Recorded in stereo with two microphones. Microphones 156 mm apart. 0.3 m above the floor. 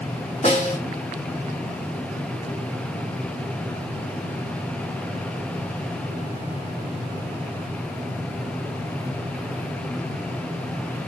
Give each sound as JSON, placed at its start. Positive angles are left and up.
{"t": 0.4, "sound": "a snare drum", "side_deg": 45, "distance_m": 2.5}